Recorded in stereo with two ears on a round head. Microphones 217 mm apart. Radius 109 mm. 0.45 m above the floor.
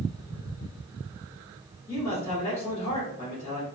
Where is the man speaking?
25° left (ahead or behind), 1.5 m.